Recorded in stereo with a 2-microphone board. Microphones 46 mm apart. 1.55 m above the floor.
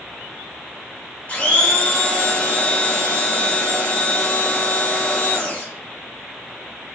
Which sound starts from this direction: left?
A blender, at 1.3 s.